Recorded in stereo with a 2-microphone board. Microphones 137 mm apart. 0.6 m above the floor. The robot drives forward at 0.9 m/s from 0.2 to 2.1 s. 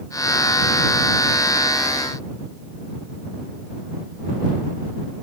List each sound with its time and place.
Only background noise.